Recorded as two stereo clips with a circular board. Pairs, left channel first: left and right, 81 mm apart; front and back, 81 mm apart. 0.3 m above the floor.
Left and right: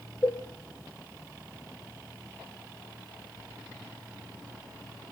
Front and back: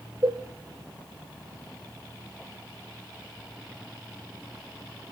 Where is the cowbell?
160° left, 3 m.